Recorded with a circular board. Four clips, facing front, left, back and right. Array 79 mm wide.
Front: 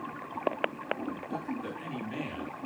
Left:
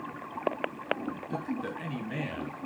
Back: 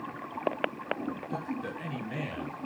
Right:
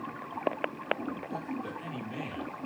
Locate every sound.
1.3 s a man speaking: 110° left, 2.5 m